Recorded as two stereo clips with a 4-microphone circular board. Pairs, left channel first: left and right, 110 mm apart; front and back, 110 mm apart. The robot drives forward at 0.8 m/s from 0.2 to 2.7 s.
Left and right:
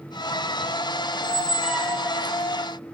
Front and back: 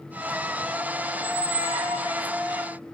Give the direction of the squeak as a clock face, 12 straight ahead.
6 o'clock.